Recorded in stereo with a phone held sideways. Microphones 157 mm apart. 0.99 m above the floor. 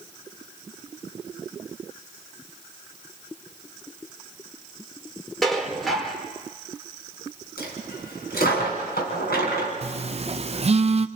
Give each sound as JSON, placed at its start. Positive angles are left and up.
{"t": 5.4, "sound": "dishes clattering", "side_deg": 0, "distance_m": 2.0}
{"t": 7.6, "sound": "a dropped coin", "side_deg": 85, "distance_m": 4.0}
{"t": 9.8, "sound": "a phone buzzing", "side_deg": -40, "distance_m": 0.6}